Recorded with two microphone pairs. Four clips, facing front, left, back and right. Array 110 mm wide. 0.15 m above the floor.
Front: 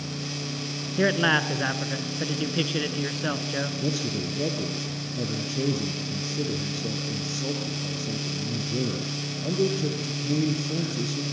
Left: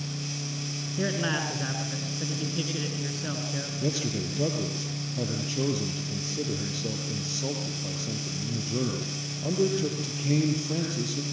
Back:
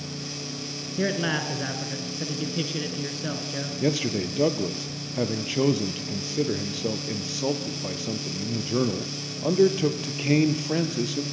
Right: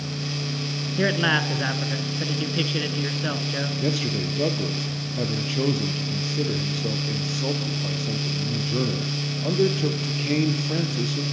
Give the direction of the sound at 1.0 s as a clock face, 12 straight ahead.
1 o'clock.